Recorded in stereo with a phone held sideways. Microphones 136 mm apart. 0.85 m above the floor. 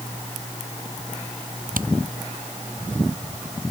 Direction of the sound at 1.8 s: 85° right.